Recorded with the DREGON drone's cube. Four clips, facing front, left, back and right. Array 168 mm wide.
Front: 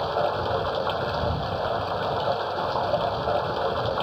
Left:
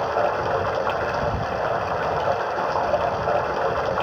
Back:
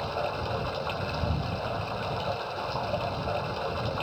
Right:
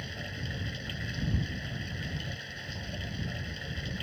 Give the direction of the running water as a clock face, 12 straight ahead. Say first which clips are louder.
Left 21 dB, front 6 dB; 10 o'clock.